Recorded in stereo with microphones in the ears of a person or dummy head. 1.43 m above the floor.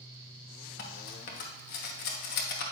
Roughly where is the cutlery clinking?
Left.